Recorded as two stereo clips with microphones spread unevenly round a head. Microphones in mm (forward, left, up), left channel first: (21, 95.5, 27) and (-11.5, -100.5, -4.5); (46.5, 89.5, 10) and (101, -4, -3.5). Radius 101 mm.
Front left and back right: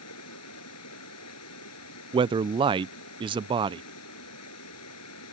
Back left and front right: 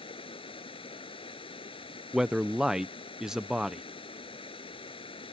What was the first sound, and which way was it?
Running water, 85° left.